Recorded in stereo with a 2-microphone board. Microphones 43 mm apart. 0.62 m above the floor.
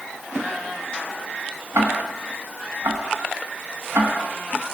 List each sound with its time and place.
1.8 s ticking: 75° right (ahead or behind), 4 m